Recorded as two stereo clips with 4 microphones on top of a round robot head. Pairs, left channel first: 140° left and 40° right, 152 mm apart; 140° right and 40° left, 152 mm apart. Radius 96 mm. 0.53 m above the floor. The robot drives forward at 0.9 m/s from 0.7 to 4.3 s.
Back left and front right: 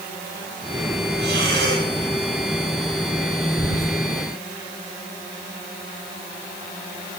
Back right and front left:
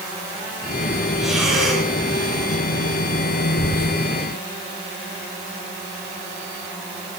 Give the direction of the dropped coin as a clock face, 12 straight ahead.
No dropped coin in this recording.